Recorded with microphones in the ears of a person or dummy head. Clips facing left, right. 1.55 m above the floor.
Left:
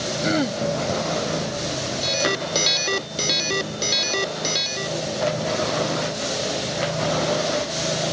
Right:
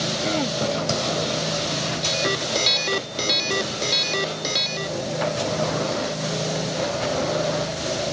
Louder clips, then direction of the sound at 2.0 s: Left 3 dB; 5° left (ahead or behind).